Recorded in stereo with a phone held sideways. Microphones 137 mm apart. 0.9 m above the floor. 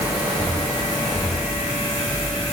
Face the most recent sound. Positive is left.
No sound to turn to.